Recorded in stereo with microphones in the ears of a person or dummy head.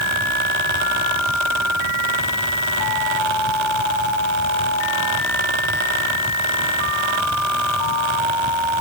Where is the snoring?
No snoring in this recording.